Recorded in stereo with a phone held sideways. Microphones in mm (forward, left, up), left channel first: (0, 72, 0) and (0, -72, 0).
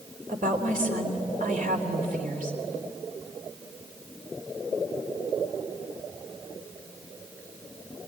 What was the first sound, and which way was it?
A woman speaking, 80° right.